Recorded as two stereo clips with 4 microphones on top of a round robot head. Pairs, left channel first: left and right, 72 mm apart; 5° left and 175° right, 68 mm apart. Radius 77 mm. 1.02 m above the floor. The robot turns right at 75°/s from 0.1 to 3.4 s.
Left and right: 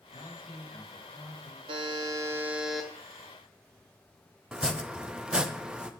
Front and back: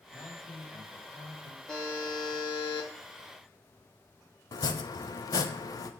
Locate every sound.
0.1 s a man speaking: 65° left, 2.0 m; by 1.6 s 175° left, 2.0 m
1.7 s a buzzer: 80° right, 0.8 m; by 2.9 s 15° left, 0.8 m
4.5 s chopping: 10° right, 0.6 m